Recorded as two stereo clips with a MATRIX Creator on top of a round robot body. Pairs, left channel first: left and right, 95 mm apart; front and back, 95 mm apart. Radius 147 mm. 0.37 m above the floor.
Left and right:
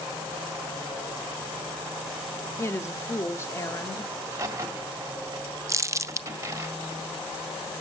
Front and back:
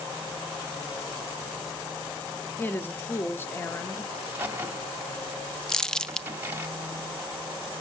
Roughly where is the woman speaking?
Ahead left.